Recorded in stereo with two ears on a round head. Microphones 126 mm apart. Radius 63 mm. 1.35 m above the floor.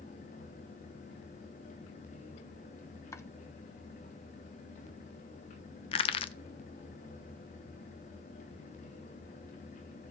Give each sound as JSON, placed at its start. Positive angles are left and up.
{"t": 3.1, "sound": "chopping", "side_deg": 20, "distance_m": 0.7}
{"t": 5.9, "sound": "crushing", "side_deg": 40, "distance_m": 0.6}